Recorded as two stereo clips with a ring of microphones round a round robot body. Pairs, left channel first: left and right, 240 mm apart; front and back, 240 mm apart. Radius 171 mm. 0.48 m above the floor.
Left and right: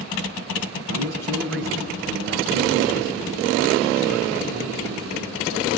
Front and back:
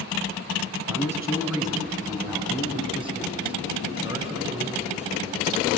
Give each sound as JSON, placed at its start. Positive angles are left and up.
{"t": 0.9, "sound": "a man speaking", "azimuth_deg": 100, "distance_m": 4.5}